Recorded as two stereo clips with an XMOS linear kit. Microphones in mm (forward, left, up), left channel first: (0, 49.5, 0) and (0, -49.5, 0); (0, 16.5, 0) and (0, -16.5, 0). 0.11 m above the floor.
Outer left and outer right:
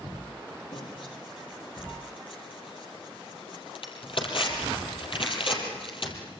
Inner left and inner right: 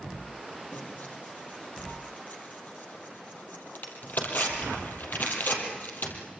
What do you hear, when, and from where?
0.7 s tearing paper: 65° left (ahead or behind), 4 m